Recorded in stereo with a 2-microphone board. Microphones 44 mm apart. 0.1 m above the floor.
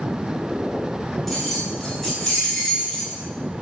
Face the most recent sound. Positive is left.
turn(degrees=20)  # may be behind; listen again after turning